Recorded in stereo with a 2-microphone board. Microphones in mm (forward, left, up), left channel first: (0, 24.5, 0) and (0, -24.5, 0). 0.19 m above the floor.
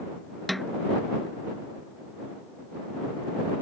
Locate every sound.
0.5 s a snare drum: centre (ahead or behind)